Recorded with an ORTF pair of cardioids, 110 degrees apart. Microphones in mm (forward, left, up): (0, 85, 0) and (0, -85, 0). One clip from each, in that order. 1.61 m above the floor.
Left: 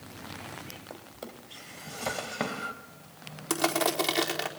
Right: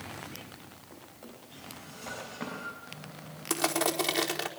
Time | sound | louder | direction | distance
0.9 | a drawer | left 5 dB | 65° left | 4.5 m
3.5 | crushing | left 2 dB | 10° left | 4.5 m